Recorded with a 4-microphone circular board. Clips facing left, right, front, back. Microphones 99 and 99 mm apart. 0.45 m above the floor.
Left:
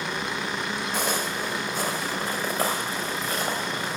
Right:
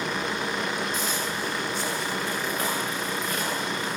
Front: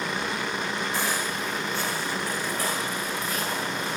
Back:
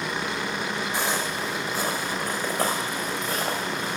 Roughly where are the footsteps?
Left.